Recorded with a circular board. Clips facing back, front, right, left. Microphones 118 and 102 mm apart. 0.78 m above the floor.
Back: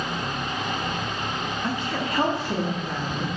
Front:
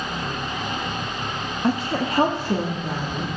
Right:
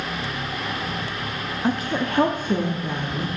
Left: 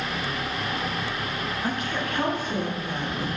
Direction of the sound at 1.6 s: 30° right.